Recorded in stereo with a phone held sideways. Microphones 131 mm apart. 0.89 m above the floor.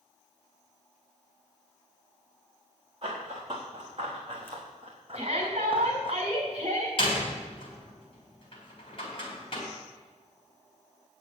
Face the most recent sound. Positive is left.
turn(degrees=45)  # may be behind; listen again after turning